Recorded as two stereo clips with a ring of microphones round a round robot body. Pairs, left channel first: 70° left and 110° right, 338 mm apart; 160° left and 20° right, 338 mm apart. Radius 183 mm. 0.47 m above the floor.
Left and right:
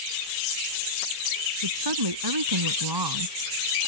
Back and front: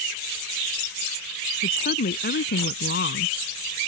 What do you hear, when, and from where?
1.6 s a woman speaking: 135° right; by 3.8 s 145° right